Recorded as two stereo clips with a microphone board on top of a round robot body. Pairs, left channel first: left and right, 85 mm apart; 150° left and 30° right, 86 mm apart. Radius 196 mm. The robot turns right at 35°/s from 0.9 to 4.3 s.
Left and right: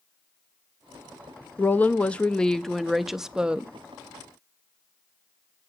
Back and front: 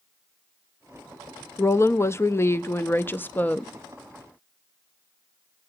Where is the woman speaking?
130° left, 0.8 m; by 3.7 s 155° right, 0.8 m.